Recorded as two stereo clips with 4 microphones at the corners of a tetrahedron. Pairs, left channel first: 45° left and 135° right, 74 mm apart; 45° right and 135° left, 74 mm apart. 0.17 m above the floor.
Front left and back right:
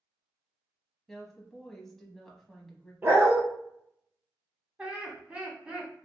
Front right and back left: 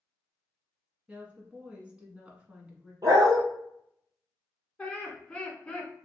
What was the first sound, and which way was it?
A woman speaking, 125° left.